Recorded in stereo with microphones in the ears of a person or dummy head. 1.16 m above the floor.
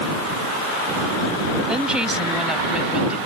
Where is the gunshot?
I don't hear a gunshot.